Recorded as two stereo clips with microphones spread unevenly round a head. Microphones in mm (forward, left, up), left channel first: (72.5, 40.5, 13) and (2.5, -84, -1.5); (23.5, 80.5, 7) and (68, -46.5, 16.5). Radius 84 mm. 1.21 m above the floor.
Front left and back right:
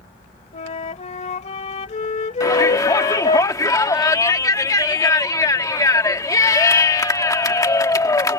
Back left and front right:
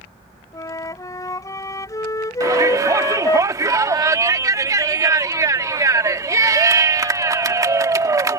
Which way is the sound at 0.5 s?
45° left.